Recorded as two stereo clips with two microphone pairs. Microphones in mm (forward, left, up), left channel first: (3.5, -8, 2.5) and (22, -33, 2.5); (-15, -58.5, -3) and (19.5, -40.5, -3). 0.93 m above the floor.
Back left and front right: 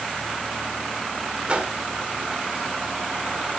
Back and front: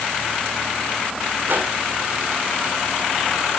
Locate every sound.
1.5 s a whoosh: 5° right, 1.6 m